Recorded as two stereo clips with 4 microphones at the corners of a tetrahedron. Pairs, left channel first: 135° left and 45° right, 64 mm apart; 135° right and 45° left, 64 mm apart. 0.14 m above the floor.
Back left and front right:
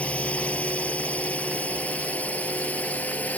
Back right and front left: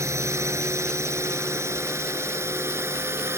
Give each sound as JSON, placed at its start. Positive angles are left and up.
{"t": 0.0, "sound": "a drone", "azimuth_deg": 70}